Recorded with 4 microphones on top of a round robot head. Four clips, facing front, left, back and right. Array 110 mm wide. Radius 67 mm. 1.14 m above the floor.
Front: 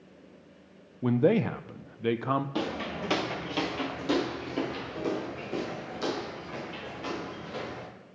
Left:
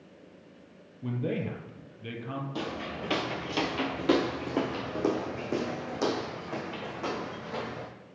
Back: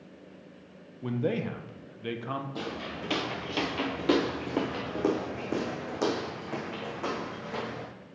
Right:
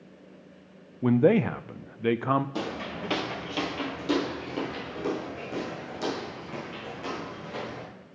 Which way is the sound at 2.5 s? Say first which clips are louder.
Right 2 dB, front 4 dB; 25° right.